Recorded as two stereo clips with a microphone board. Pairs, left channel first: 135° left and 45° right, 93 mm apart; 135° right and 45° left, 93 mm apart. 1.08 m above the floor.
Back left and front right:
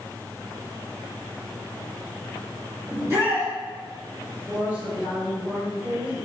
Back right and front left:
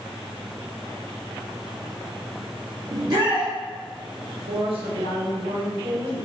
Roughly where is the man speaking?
Ahead left.